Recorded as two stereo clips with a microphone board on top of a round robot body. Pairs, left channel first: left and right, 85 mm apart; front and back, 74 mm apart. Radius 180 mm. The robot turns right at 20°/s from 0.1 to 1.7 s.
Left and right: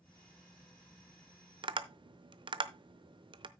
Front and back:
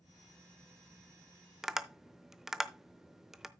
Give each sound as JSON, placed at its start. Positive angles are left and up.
{"t": 1.6, "sound": "tapping", "azimuth_deg": -95, "distance_m": 0.8}